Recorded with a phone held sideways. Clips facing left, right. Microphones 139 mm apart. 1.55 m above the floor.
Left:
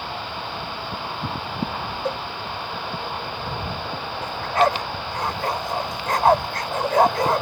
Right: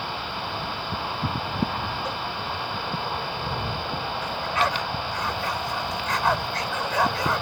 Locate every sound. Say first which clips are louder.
2.0 s a cowbell: left 5 dB; 50° left (ahead or behind)
4.2 s a dog barking: left 7 dB; 50° left (ahead or behind)